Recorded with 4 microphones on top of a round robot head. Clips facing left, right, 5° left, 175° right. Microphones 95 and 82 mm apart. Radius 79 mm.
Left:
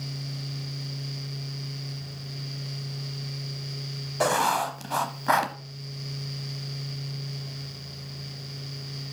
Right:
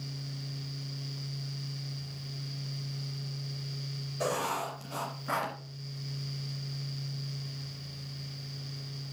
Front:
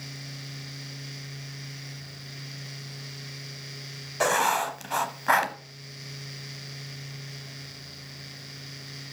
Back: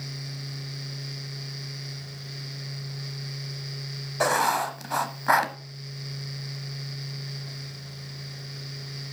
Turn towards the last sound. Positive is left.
turn(degrees=105)